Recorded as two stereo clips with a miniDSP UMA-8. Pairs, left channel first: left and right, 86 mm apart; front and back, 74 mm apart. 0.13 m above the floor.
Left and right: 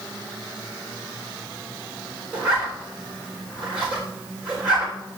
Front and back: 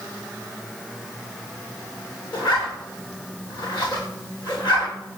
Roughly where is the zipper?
Ahead.